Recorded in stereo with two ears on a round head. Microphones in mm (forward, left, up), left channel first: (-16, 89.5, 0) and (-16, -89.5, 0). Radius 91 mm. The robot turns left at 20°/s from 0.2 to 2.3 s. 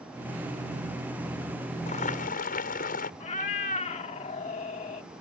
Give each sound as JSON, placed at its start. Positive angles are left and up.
{"t": 1.9, "sound": "boiling", "side_deg": 40}
{"t": 3.2, "sound": "a cat meowing", "side_deg": 35}